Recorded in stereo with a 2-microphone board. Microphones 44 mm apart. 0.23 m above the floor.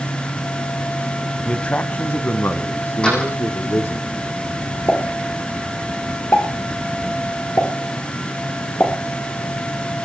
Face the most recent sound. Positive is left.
turn(degrees=50)  # may be behind; listen again after turning